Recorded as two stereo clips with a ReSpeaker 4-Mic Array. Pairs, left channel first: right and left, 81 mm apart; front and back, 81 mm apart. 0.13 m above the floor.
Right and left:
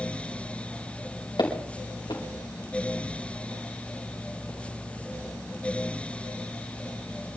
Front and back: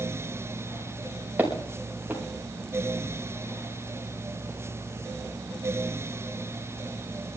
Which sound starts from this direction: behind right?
Footsteps, at 1.4 s.